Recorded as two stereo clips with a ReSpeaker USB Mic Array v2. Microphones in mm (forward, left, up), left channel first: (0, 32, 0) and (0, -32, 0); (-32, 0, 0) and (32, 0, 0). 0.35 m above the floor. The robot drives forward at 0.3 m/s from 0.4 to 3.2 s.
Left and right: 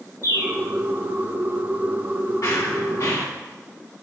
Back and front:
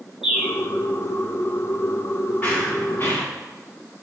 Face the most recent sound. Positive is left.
turn(degrees=125)